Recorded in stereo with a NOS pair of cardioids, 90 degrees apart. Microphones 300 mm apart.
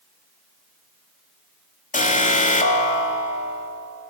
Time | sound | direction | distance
1.9 | an alarm | 25° left | 3 m